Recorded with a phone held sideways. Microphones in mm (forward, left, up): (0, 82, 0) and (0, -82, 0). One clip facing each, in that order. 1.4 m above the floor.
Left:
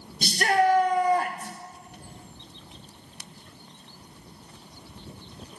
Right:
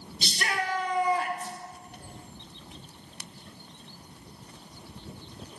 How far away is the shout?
About 1.1 m.